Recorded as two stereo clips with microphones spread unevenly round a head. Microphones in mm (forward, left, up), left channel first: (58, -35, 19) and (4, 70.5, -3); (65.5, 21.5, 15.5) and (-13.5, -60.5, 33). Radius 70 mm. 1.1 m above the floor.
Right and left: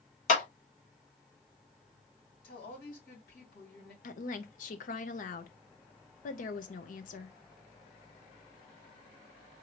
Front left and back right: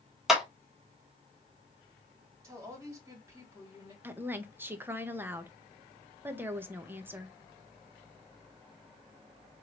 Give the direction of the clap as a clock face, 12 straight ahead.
1 o'clock.